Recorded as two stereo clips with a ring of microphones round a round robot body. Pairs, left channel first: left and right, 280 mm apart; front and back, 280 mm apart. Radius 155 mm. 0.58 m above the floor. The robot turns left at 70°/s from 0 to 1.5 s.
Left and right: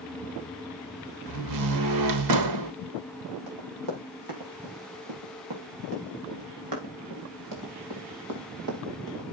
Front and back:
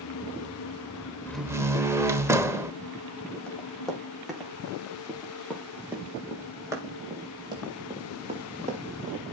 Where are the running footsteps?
90° right, 8 m; by 9.2 s 120° right, 4.5 m.